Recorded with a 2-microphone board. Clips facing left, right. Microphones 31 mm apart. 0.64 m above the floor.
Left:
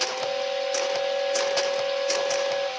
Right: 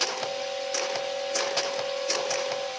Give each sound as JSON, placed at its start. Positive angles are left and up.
{"t": 0.2, "sound": "a flute", "side_deg": 35, "distance_m": 1.4}